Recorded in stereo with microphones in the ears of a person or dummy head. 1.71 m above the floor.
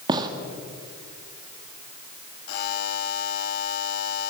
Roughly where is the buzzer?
Left.